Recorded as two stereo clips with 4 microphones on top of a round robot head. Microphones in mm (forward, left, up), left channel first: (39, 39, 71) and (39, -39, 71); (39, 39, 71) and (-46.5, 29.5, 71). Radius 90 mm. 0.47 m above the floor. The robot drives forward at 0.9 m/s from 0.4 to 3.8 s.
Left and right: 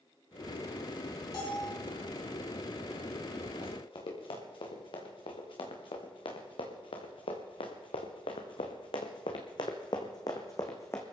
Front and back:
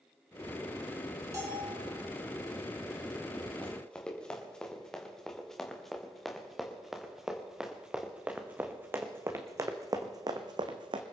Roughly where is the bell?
Behind left.